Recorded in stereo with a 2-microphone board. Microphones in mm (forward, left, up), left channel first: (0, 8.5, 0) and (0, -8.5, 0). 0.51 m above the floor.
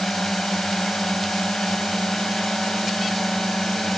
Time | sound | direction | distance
0.0 | a drone | 65° left (ahead or behind) | ?